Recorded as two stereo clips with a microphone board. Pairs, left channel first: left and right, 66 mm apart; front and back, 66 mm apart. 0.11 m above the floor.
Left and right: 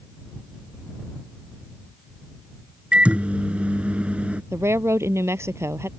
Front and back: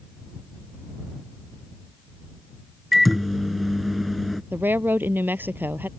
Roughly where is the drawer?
No drawer in this recording.